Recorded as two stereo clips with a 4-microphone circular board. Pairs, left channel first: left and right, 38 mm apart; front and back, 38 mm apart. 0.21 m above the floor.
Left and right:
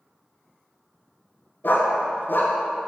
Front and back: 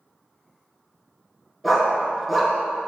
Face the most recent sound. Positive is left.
turn(degrees=90)